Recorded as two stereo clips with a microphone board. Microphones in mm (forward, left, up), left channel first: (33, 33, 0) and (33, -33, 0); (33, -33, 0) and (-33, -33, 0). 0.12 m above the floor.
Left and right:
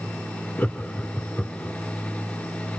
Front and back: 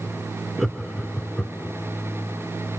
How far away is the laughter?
About 1.6 m.